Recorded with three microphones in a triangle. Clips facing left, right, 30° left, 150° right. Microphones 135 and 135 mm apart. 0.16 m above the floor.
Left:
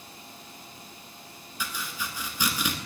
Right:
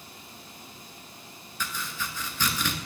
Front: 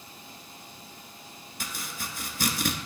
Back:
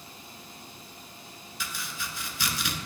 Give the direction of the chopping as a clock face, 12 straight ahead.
11 o'clock.